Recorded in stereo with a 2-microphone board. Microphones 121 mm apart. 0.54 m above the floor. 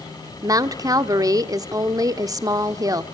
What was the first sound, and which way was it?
A woman speaking, 30° right (ahead or behind).